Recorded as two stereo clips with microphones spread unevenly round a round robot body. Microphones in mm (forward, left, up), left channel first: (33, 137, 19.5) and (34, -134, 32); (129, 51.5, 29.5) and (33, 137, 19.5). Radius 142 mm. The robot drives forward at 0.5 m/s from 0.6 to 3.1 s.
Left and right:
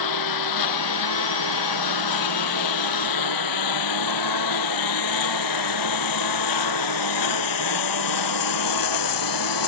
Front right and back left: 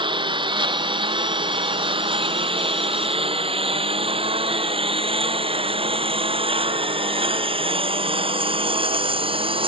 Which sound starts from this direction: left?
A lawn mower, at 0.0 s.